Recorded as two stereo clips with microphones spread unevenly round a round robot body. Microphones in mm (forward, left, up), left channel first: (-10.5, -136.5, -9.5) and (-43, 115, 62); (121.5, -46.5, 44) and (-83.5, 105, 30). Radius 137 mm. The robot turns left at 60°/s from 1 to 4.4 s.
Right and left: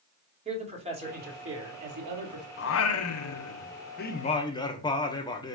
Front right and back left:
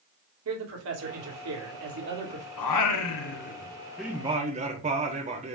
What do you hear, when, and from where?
0.5 s a man speaking: 170° left, 3 m; by 2.5 s 80° left, 3 m
2.6 s singing: 40° right, 1.2 m; by 5.5 s 150° right, 1.2 m